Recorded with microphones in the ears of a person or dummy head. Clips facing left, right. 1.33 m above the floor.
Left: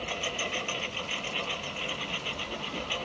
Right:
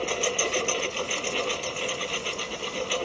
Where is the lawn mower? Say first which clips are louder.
Right 8 dB; 55° right (ahead or behind).